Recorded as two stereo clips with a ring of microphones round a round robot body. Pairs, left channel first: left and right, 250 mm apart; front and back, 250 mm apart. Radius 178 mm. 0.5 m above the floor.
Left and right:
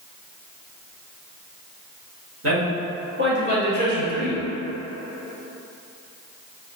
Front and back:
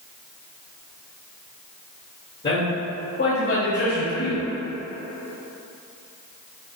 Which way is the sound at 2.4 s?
75° right.